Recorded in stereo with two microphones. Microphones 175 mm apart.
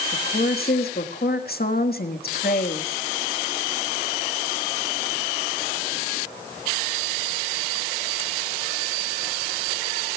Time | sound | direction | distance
0.1 | a woman speaking | 65° left (ahead or behind) | 1.5 m